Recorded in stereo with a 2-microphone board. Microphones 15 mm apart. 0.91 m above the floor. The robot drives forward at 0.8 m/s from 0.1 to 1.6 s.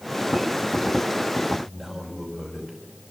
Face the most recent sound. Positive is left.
turn(degrees=-15)  # may be behind; listen again after turning